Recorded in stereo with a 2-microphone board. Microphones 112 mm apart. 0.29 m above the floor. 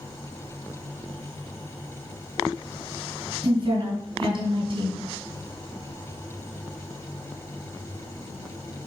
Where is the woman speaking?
55° right (ahead or behind), 2.5 m.